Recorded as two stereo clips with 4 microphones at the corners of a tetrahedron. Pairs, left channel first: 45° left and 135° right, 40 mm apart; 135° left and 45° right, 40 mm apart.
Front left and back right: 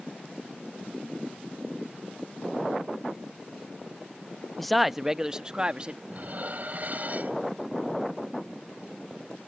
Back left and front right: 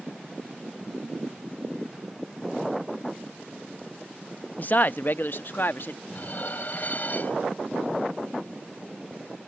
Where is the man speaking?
125° left; by 6.0 s 165° left.